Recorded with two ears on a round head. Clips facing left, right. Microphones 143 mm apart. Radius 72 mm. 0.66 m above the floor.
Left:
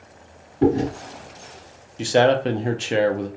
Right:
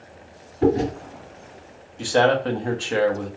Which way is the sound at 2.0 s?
25° left (ahead or behind).